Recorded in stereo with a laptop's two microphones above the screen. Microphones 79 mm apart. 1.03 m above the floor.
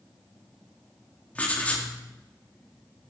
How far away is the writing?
About 1.6 m.